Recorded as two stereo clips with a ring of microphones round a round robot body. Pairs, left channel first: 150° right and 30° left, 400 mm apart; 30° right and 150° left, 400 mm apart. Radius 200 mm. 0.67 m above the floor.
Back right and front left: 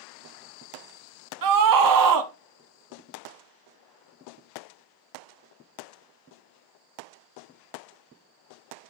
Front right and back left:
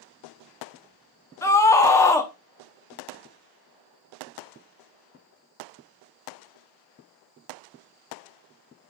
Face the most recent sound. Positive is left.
turn(degrees=50)